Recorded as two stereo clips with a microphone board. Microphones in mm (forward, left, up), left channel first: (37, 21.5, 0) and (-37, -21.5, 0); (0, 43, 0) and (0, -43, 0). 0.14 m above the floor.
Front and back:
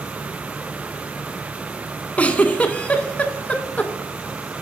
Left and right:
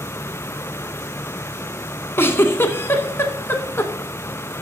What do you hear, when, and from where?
2.2 s a giggle: 85° left, 0.8 m